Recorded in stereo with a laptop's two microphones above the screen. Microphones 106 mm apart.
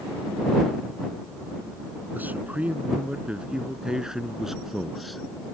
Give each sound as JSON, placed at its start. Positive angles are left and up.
{"t": 2.1, "sound": "a man speaking", "side_deg": -15}